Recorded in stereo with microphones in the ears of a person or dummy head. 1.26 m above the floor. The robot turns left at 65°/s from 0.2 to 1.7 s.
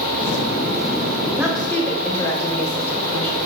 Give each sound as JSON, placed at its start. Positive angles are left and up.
{"t": 1.4, "sound": "a woman speaking", "side_deg": -10, "distance_m": 3.5}